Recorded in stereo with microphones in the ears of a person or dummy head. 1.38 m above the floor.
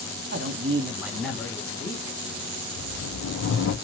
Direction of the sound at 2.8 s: 70° left (ahead or behind).